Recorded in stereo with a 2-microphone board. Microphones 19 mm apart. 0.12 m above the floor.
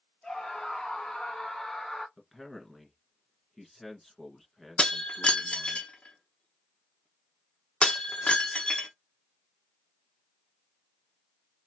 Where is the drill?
I don't hear a drill.